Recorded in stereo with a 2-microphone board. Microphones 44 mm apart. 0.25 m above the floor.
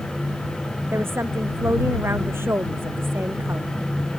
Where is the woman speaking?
65° right (ahead or behind); by 3.7 s 60° right (ahead or behind).